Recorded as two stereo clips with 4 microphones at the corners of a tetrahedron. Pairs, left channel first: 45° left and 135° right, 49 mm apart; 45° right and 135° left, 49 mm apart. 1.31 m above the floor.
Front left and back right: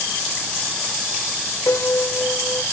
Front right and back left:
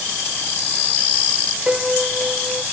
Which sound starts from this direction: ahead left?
A piano, at 1.7 s.